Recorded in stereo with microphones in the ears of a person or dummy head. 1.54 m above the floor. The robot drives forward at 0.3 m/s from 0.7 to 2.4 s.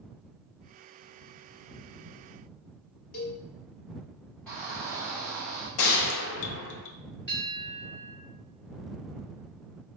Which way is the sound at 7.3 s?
20° left (ahead or behind).